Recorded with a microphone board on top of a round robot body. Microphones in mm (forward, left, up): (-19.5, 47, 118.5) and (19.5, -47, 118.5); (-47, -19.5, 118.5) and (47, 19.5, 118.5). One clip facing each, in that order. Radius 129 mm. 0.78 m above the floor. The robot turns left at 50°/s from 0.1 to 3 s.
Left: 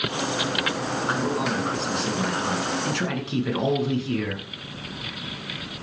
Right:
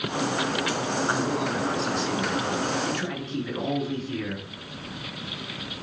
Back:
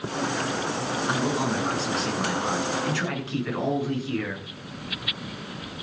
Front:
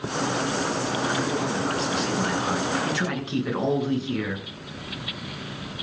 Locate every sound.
1.1 s a man speaking: 170° right, 8.5 m; by 4.5 s 95° left, 8.5 m